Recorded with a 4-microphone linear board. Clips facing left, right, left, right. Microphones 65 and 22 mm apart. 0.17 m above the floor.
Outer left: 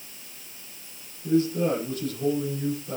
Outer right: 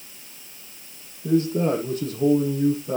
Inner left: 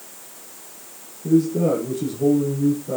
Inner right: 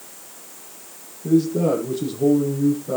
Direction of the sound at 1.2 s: 45° right (ahead or behind).